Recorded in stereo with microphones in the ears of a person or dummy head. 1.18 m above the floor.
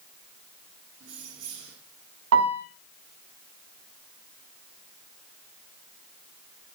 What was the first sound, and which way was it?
Keys jangling, 80° right.